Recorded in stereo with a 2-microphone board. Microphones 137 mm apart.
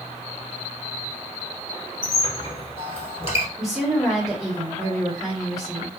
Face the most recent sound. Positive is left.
turn(degrees=0)  # may be behind; listen again after turning